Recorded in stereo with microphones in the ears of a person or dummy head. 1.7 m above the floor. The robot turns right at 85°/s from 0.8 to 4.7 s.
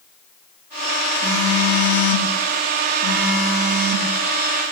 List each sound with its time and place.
1.2 s a phone buzzing: 5° left, 3 m; by 4.1 s 105° right, 3 m